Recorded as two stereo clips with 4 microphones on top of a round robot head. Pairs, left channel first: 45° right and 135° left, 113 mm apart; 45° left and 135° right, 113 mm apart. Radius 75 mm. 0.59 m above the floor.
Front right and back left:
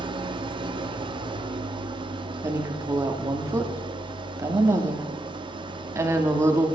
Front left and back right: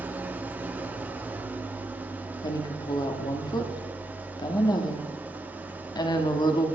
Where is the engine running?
155° left, 1.0 m.